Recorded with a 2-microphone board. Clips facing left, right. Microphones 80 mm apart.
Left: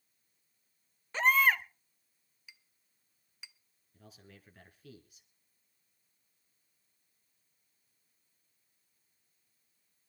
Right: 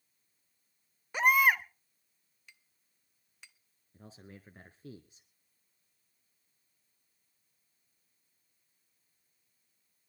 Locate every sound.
1.1 s a baby crying: 15° right (ahead or behind), 0.7 m
2.5 s a clink: 5° left (ahead or behind), 0.6 m
3.9 s a man speaking: 35° right (ahead or behind), 1.3 m